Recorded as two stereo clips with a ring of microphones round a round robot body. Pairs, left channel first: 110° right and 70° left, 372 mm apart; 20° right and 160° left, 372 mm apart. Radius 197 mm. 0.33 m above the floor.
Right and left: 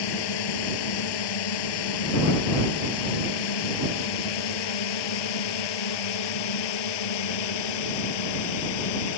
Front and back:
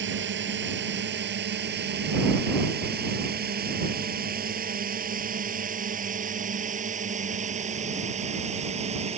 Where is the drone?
140° right; by 9.2 s 130° right.